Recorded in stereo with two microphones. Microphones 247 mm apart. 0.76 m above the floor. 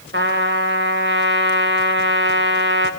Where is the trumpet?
50° right (ahead or behind), 3 m.